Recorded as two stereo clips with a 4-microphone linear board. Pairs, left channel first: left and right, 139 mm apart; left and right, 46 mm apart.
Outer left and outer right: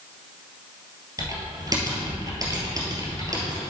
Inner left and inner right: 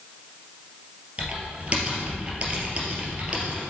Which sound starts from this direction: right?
Typing on a keyboard, at 1.2 s.